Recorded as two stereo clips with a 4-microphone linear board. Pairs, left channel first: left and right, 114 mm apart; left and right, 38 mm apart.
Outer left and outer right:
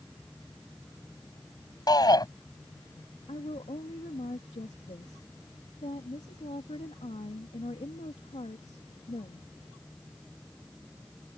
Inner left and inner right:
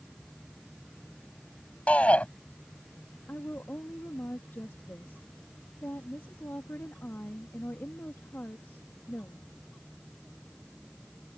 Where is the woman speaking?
70° left (ahead or behind).